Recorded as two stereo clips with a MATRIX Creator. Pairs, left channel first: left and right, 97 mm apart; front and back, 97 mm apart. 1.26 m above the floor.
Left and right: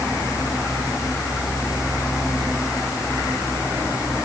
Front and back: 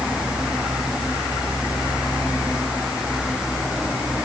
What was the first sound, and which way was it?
Only background noise.